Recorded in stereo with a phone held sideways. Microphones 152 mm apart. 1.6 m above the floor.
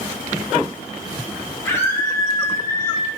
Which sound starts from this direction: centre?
A scream, at 1.6 s.